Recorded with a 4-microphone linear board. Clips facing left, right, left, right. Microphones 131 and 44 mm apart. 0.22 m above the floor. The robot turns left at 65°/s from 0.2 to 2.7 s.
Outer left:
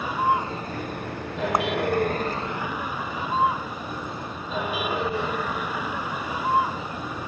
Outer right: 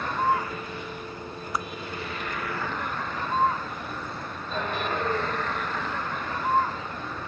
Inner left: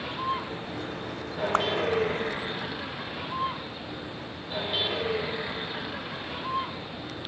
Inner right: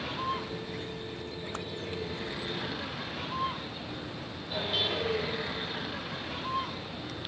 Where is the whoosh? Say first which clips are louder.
Outer left 7 dB, inner left 16 dB; 50° left (ahead or behind); by 1.7 s 60° left (ahead or behind).